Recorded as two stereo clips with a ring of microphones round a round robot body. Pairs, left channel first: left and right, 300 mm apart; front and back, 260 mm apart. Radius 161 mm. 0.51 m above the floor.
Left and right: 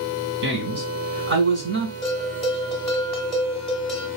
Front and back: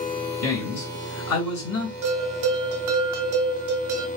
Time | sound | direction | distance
0.4 | a man speaking | 40° right | 2.5 m
2.0 | a bell | straight behind | 1.3 m